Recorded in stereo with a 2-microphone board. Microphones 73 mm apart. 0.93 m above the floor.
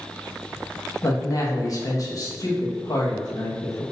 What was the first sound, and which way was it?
A man speaking, 50° left (ahead or behind).